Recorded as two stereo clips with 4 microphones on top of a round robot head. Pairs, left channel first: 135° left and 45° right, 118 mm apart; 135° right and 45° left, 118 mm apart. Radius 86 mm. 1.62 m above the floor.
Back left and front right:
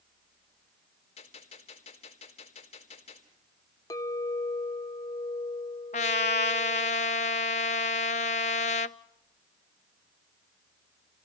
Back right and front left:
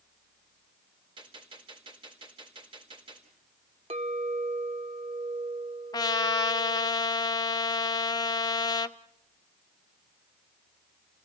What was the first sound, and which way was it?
A gunshot, 100° left.